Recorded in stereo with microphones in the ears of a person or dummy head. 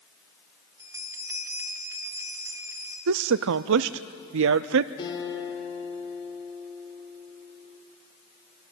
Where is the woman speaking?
70° right (ahead or behind), 0.5 m.